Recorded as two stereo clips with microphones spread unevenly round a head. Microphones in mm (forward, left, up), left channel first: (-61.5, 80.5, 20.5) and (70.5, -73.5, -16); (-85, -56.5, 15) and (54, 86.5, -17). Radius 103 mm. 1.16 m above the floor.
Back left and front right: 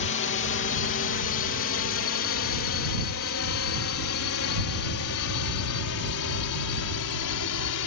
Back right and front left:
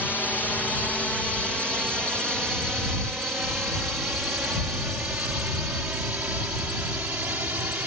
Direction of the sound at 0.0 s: 140° left.